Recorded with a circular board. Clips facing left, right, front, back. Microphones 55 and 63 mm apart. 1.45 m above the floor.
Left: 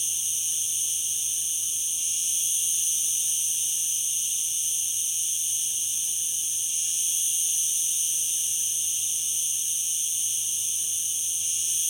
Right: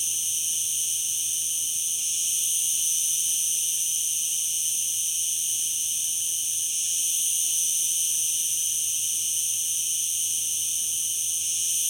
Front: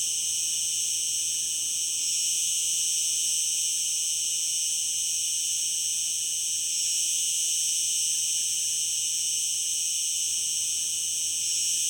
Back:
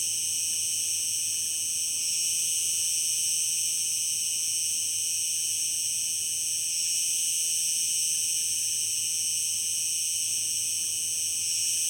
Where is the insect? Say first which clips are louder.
Right 1 dB, front 2 dB; 120° right, 1.9 m.